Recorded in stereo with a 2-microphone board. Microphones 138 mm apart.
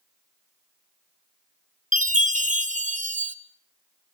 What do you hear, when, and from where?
1.9 s a chime: 65° right (ahead or behind), 1.1 m